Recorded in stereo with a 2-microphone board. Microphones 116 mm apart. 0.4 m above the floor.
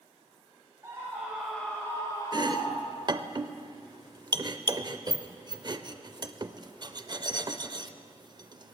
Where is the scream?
30° right (ahead or behind), 1.9 m; by 3.2 s 60° left (ahead or behind), 2.5 m.